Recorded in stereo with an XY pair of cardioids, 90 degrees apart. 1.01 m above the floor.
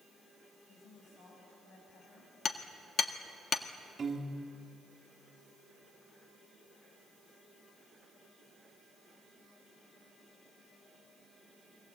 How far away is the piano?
About 3 m.